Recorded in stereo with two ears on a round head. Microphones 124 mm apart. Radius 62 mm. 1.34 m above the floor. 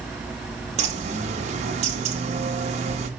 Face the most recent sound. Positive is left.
turn(degrees=-50)  # may be behind; listen again after turning